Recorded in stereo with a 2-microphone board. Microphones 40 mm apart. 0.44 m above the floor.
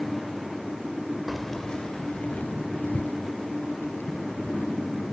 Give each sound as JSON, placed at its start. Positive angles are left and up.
{"t": 1.3, "sound": "keys jangling", "side_deg": 0}